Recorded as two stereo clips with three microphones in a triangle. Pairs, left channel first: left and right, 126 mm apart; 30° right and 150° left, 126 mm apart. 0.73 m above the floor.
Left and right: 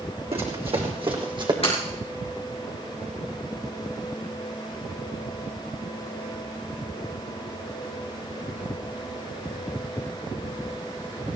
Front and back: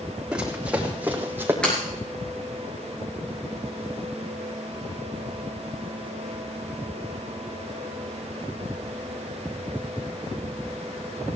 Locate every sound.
0.3 s running footsteps: 125° right, 3 m; by 1.5 s 135° right, 2 m
1.6 s breaking glass: 55° left, 6 m